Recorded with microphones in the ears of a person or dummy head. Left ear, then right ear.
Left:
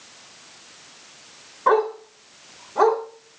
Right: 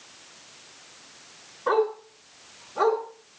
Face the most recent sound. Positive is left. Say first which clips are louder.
# left 4 dB
turn(degrees=65)  # may be behind; listen again after turning